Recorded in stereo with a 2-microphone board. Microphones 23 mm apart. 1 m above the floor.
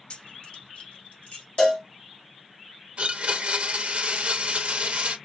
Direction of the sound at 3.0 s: 60° right (ahead or behind).